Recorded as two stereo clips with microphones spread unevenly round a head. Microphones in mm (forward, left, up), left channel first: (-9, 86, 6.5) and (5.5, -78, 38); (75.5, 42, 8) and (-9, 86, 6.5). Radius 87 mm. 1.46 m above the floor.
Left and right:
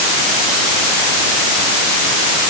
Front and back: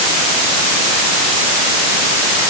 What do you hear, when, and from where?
Only background noise.